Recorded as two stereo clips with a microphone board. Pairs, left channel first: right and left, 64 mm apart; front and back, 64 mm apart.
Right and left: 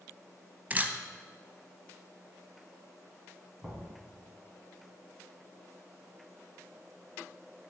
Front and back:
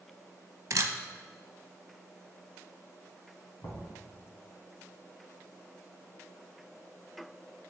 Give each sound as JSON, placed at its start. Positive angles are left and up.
{"t": 0.7, "sound": "a camera shutter", "azimuth_deg": 150, "distance_m": 0.6}
{"t": 3.6, "sound": "knocking", "azimuth_deg": -10, "distance_m": 2.5}